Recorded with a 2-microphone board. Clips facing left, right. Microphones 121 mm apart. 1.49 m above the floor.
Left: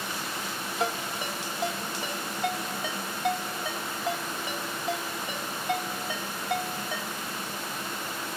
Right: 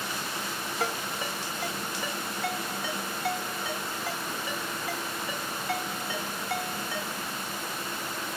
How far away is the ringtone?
About 2.0 m.